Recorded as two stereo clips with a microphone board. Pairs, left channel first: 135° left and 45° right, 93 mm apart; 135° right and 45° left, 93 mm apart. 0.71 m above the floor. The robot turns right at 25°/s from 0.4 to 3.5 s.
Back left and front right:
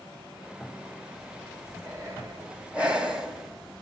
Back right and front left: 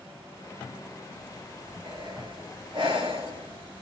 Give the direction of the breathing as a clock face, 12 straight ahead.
12 o'clock.